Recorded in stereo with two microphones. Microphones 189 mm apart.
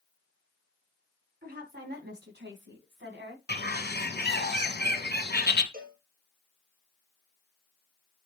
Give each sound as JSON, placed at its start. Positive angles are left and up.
{"t": 1.4, "sound": "a woman speaking", "side_deg": -55, "distance_m": 3.5}
{"t": 3.5, "sound": "a bird", "side_deg": 65, "distance_m": 1.7}
{"t": 5.7, "sound": "a cowbell", "side_deg": -50, "distance_m": 2.5}